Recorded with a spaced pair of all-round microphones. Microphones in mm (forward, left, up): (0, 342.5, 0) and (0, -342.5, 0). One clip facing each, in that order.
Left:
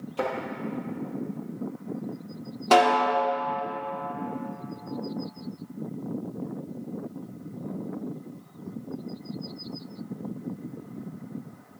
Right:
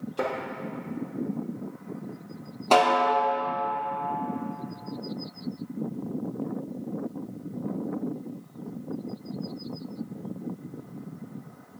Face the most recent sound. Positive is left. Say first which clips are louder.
# left 1 dB
turn(degrees=50)  # may be behind; listen again after turning